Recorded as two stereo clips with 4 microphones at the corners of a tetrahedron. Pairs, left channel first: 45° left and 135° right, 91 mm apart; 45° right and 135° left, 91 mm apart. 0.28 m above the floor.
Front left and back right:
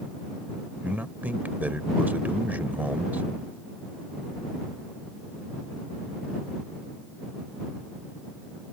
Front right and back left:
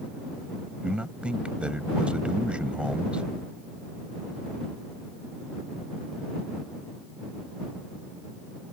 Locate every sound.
0.8 s a man speaking: 170° right